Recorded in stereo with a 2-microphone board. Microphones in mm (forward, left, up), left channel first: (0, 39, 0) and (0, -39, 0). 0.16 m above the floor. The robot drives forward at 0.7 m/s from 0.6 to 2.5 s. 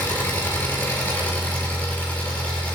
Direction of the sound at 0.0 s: 30° left (ahead or behind).